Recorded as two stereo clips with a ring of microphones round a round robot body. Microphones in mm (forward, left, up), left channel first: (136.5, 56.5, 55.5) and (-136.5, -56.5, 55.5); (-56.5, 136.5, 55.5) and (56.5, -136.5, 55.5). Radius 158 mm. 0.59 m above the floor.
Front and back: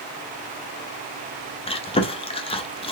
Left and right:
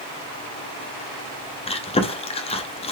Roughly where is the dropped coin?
No dropped coin in this recording.